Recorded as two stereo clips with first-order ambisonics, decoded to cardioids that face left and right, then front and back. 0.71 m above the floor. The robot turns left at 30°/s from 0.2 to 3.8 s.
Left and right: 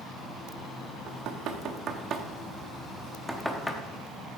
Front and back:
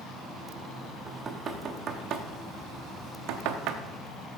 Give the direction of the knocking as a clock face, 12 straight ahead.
4 o'clock.